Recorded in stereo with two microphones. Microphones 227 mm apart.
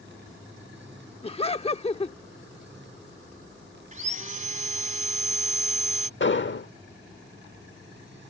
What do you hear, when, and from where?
1.2 s laughter: 25° left (ahead or behind)
3.9 s sawing: 35° right (ahead or behind)
6.2 s an explosion: 60° left (ahead or behind)